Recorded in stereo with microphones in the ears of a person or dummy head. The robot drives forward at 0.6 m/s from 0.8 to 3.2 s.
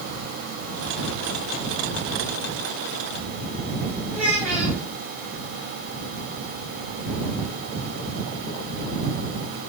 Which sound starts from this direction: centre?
A child speaking, at 4.1 s.